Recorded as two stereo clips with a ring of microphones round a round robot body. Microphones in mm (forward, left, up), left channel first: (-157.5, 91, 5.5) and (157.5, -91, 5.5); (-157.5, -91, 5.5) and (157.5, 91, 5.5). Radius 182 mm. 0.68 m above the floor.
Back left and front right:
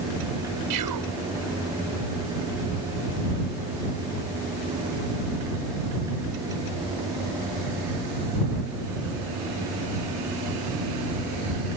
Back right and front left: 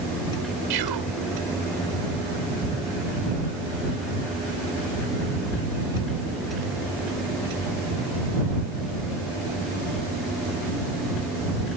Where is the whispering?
5° left.